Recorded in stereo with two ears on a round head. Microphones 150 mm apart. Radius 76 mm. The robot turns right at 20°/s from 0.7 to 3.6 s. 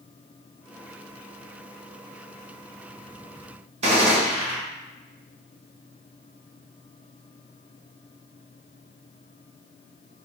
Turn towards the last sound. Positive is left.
turn(degrees=-40)  # may be behind; listen again after turning